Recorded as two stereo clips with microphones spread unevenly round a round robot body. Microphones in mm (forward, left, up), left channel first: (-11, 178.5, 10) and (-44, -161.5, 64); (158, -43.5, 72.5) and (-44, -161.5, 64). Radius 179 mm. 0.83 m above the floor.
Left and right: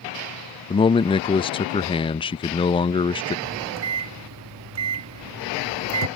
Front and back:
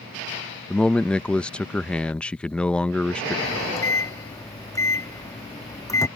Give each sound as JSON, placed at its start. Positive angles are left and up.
{"t": 0.7, "sound": "a man speaking", "azimuth_deg": 115}
{"t": 3.5, "sound": "a microwave", "azimuth_deg": -45}